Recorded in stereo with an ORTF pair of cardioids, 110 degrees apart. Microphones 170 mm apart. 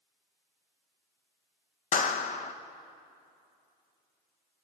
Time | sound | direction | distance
1.9 | a clap | 45° left | 1.4 m